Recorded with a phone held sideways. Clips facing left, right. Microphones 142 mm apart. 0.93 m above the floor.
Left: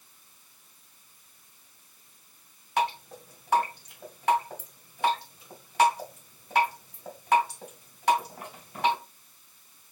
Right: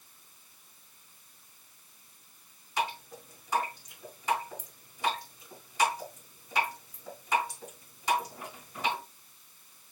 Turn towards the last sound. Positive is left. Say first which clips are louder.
# left 5 dB
turn(degrees=65)  # may be behind; listen again after turning